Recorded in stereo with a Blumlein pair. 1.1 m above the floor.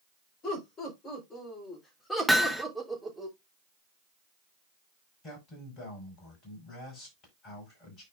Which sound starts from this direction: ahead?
Hammering, at 2.3 s.